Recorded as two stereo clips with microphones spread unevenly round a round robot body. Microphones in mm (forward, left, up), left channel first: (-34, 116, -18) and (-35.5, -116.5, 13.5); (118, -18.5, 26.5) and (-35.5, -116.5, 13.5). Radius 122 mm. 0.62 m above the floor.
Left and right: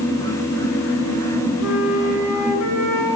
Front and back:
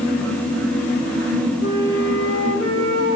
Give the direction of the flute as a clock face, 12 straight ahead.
10 o'clock.